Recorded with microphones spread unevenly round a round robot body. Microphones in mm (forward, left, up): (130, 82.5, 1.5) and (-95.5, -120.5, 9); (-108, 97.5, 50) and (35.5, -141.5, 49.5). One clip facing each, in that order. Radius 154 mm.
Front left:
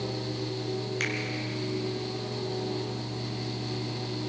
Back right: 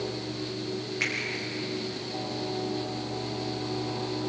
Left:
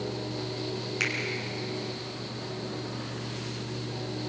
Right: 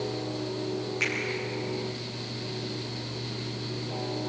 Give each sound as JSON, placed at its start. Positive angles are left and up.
{"t": 1.0, "sound": "a finger snap", "azimuth_deg": 75, "distance_m": 4.5}